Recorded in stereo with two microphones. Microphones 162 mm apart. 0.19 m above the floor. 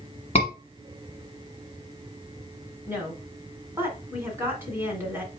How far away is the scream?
About 1.6 m.